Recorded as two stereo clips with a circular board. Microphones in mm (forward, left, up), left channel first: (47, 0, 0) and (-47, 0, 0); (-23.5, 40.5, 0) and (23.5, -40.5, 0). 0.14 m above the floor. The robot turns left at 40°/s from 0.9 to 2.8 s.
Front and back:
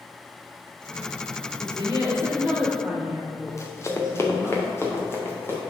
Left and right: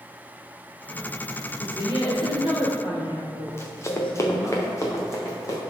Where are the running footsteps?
55° left, 1.0 m; by 5.6 s 65° left, 3.5 m.